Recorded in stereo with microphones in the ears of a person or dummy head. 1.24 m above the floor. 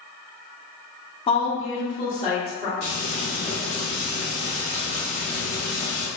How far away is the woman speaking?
About 0.6 m.